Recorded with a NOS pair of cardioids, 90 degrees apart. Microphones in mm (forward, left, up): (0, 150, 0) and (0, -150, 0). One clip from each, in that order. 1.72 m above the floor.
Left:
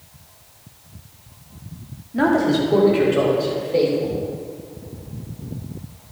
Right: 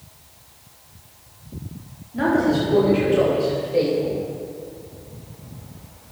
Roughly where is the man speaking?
Ahead left.